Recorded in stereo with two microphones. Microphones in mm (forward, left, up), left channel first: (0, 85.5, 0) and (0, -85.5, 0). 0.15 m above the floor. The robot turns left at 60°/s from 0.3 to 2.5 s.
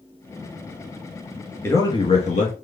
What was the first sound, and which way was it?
A man speaking, 165° left.